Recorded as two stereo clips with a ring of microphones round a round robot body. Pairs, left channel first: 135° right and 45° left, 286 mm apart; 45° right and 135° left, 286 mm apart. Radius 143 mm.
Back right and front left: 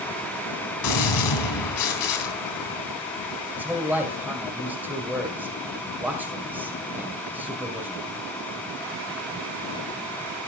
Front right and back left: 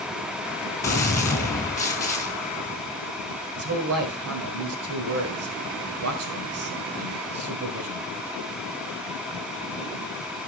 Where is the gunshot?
125° right, 3 m.